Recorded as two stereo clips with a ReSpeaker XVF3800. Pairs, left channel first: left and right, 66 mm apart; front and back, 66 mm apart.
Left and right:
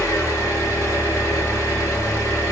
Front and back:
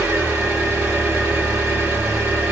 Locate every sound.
0.0 s an engine running: 115° left, 1.6 m